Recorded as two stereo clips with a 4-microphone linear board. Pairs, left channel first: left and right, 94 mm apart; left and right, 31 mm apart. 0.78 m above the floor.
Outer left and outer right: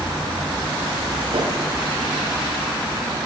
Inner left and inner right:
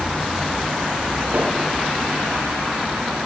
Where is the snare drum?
85° right, 7 m.